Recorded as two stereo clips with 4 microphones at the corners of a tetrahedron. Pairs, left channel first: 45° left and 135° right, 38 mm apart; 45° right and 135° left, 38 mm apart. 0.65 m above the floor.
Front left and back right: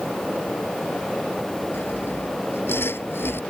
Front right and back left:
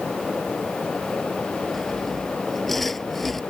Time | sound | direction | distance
1.7 | sawing | 40° left | ?